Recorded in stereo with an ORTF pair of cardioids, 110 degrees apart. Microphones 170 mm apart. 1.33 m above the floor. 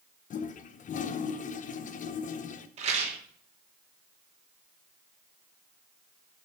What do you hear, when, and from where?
0.3 s a toilet flushing: 50° left, 0.8 m
2.8 s a rattle: 40° right, 3 m